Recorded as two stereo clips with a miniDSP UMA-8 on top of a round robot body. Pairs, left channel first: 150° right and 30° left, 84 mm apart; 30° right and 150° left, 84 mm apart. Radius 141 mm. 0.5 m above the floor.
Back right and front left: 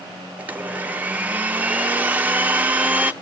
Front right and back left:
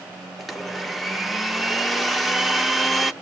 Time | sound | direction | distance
0.4 | a blender | 65° left | 0.8 m